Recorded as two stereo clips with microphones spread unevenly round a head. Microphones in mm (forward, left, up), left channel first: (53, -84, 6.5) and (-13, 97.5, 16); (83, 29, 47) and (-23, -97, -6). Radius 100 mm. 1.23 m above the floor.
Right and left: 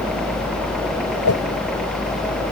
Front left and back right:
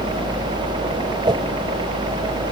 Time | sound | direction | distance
0.0 | a helicopter | 160° right | ?
1.2 | a whoosh | 65° right | ?